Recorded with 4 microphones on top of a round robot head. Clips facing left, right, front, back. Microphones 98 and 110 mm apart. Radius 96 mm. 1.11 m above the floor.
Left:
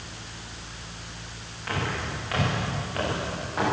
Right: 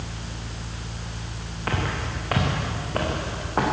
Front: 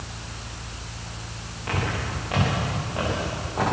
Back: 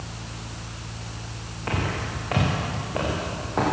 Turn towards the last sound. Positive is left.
turn(degrees=-130)